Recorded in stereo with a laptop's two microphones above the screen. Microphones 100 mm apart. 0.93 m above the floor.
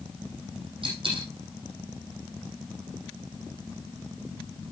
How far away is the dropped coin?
About 7 m.